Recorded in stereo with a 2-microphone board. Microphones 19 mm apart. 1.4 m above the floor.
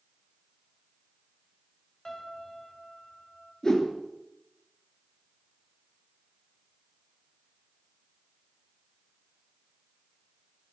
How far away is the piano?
About 4 m.